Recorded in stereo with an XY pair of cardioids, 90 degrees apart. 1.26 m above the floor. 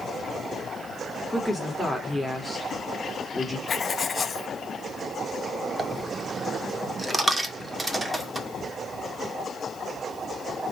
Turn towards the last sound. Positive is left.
turn(degrees=-25)